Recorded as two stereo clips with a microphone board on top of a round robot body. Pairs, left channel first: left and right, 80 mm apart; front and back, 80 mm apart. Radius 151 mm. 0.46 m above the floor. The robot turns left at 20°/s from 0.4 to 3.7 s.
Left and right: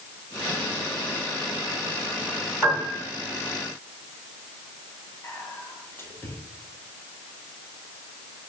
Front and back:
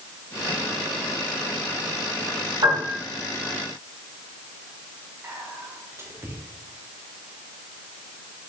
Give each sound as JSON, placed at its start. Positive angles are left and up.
{"t": 2.6, "sound": "a piano", "azimuth_deg": 165, "distance_m": 2.5}
{"t": 5.2, "sound": "whispering", "azimuth_deg": 135, "distance_m": 1.3}